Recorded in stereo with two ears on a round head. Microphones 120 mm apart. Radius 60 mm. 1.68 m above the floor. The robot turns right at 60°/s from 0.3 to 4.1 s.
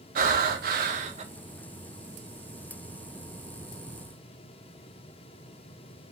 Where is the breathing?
110° right, 0.7 m; by 1.2 s 50° right, 0.7 m.